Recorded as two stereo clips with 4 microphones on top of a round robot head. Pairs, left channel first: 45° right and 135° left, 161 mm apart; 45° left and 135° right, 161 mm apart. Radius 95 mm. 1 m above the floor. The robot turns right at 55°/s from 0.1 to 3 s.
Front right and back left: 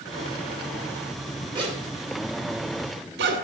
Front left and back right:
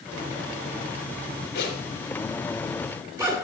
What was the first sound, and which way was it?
A zipper, 70° left.